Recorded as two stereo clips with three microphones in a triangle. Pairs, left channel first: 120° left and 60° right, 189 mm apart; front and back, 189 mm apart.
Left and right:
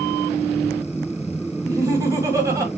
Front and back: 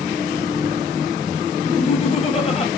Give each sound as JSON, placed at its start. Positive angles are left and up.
{"t": 1.6, "sound": "laughter", "azimuth_deg": -5, "distance_m": 1.4}